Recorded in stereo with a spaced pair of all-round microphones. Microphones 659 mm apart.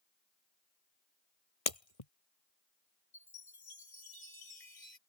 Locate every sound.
1.7 s breaking glass: 60° left (ahead or behind)
3.1 s a chime: 70° left (ahead or behind)